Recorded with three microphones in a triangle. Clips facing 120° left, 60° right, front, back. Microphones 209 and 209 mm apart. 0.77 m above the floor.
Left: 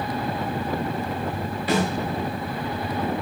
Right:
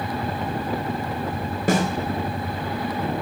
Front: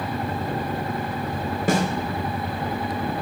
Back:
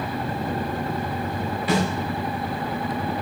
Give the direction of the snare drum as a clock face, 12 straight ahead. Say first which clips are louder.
Right 2 dB, front 1 dB; 1 o'clock.